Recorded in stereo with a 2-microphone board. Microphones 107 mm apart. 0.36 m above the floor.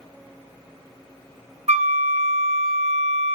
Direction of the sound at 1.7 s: 85° right.